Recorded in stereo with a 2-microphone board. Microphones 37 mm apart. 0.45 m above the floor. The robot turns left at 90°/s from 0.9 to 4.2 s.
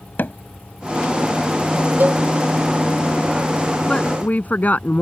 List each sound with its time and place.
0.2 s hammering: 65° left (ahead or behind)
2.0 s a cowbell: 60° right (ahead or behind); by 2.2 s 40° right (ahead or behind)
3.9 s a woman speaking: 20° left (ahead or behind); by 5.0 s 45° left (ahead or behind)